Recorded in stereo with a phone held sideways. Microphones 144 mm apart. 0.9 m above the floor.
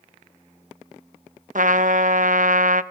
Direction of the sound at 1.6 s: 65° right (ahead or behind).